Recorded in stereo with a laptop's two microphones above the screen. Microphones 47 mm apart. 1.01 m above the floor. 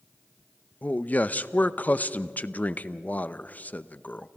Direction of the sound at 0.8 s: 35° left (ahead or behind).